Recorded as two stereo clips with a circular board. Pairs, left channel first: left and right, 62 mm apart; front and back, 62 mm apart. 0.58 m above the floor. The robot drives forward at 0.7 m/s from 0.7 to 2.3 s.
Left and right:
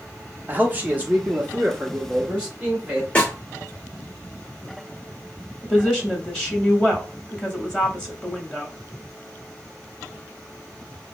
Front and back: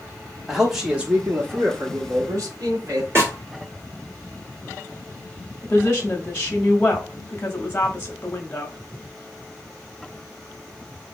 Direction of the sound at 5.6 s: 25° left.